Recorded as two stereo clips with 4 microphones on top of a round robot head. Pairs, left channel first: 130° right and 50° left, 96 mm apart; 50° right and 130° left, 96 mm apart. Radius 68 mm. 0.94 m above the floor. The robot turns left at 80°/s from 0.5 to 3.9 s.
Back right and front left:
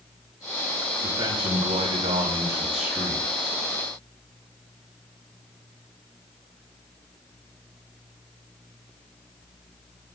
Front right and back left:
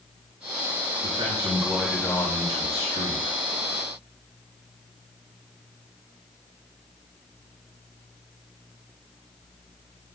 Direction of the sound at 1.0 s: 110° left.